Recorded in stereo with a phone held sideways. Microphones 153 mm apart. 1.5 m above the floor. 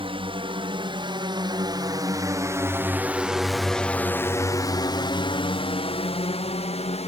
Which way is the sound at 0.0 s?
35° right (ahead or behind).